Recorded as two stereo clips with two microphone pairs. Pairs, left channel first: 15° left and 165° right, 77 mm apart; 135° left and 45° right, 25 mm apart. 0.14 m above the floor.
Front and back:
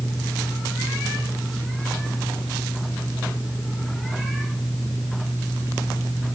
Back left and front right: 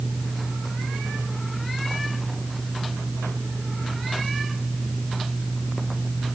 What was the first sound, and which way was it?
Only background noise.